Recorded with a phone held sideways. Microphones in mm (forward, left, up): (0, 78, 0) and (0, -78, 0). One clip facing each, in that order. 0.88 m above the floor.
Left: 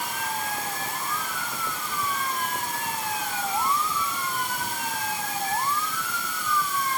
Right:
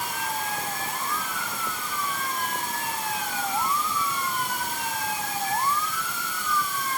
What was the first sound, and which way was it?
Only background noise.